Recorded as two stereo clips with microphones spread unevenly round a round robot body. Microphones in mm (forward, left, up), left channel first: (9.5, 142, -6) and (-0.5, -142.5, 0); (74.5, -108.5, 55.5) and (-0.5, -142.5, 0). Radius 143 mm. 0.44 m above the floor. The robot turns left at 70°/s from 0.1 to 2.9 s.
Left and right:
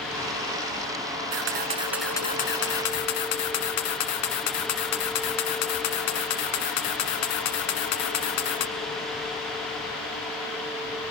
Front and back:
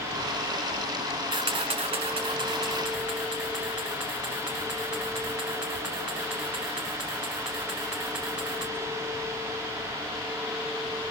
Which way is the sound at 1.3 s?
130° right.